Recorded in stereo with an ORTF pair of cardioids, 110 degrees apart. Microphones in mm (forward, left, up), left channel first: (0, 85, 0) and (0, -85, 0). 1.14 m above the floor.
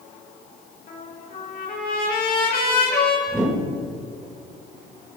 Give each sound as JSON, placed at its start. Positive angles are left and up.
{"t": 0.9, "sound": "a trumpet", "azimuth_deg": 60, "distance_m": 5.0}
{"t": 3.3, "sound": "a whoosh", "azimuth_deg": -5, "distance_m": 5.0}